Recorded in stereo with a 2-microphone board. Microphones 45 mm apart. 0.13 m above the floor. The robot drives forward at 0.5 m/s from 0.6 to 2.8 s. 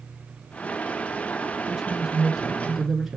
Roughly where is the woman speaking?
Centre.